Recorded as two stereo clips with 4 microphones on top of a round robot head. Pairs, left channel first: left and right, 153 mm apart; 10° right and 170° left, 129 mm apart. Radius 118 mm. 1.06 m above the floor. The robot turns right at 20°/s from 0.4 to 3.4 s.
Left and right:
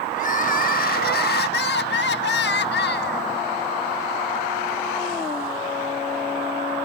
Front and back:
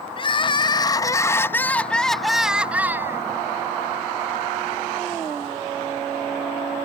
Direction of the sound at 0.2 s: 45° left.